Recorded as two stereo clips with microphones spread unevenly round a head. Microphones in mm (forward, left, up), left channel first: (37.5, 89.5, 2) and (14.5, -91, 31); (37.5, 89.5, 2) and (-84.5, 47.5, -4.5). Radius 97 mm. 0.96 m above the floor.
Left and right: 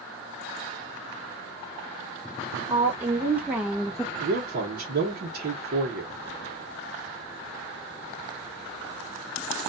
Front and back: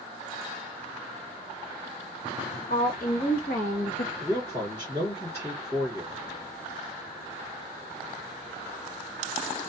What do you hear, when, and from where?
2.7 s a woman speaking: 15° right, 1.5 m; by 4.1 s straight ahead, 0.9 m
4.2 s a man speaking: 60° right, 1.0 m